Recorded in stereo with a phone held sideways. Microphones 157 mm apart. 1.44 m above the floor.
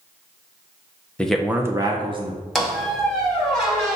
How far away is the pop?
I don't hear a pop.